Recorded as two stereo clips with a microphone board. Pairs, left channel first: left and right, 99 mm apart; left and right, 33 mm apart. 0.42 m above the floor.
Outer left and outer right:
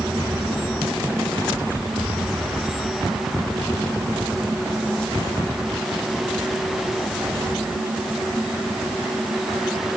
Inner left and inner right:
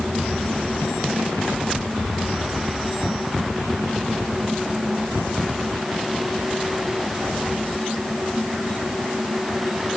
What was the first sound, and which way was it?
Only background noise.